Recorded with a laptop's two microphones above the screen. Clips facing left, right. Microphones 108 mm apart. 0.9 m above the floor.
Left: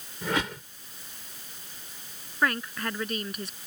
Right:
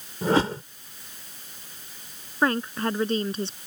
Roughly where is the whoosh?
Right.